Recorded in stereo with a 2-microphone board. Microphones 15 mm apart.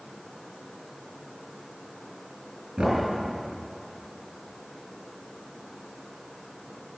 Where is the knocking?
80° right, 6 m.